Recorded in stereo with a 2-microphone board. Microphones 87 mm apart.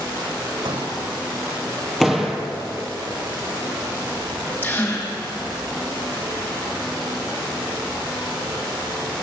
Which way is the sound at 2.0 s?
Centre (ahead or behind).